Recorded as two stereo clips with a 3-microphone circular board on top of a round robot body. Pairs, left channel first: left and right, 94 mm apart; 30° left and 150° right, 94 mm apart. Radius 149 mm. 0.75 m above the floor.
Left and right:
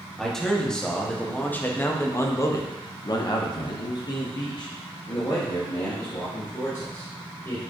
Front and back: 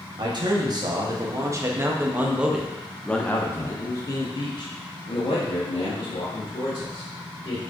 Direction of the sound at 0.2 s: 175° left.